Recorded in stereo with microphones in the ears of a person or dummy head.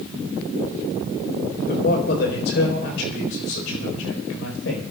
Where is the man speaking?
60° left (ahead or behind), 4 m; by 4.8 s 80° left, 4.5 m.